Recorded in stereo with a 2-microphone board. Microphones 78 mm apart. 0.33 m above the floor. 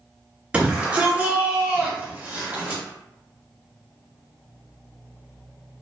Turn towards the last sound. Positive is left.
turn(degrees=-20)  # may be behind; listen again after turning